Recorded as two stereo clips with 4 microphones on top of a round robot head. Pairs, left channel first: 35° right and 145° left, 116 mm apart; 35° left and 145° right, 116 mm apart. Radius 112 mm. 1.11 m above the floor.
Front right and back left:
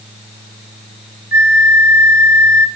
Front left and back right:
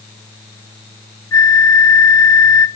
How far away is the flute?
About 0.7 m.